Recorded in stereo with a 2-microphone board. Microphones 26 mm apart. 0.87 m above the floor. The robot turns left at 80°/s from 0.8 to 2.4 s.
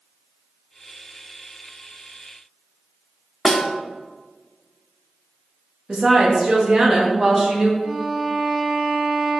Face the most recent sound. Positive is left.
turn(degrees=-55)  # may be behind; listen again after turning